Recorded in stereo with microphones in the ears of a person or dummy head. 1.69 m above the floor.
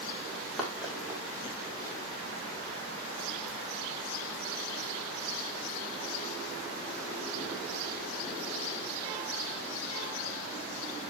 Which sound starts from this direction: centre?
Running footsteps, at 0.3 s.